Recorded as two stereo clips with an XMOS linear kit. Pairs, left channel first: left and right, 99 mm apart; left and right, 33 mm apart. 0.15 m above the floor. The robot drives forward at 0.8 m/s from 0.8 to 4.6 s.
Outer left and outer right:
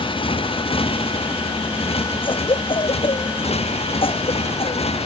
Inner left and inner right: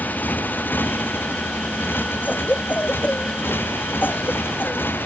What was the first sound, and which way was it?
A motorcycle, 60° left (ahead or behind).